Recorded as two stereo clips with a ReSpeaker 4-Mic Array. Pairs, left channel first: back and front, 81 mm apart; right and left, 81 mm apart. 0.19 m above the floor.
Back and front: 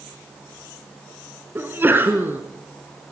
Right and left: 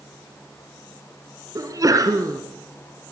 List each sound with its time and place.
1.6 s a sneeze: 60° left, 2.5 m